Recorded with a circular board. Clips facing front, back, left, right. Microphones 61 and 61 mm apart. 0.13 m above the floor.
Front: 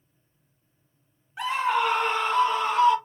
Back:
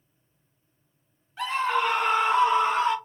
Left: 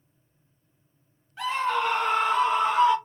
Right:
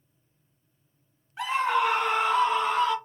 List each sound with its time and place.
1.4 s a scream: 50° right, 1.2 m; by 3.0 s 150° left, 1.3 m